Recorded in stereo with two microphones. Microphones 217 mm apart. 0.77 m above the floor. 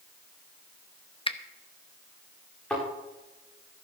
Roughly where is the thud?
Centre.